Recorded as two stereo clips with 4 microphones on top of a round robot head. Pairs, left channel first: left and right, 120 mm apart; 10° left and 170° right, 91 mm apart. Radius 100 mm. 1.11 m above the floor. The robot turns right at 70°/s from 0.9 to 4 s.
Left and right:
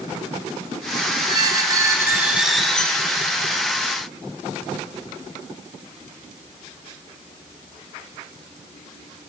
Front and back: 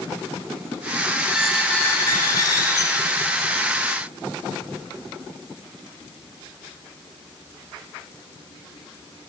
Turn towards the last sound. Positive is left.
turn(degrees=95)